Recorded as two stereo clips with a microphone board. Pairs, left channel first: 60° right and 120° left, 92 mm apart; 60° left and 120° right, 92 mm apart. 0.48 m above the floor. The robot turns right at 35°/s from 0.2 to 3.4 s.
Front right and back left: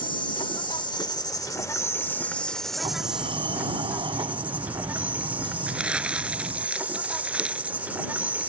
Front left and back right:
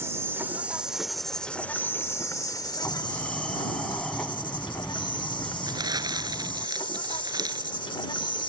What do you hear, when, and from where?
0.0 s an insect: 60° right; by 8.5 s 50° left
2.8 s a sliding door: 120° left; by 6.7 s 140° left
5.7 s crumpling: 160° right